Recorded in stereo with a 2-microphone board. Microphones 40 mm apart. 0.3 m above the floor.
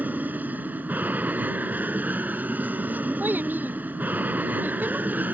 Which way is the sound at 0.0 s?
45° right (ahead or behind).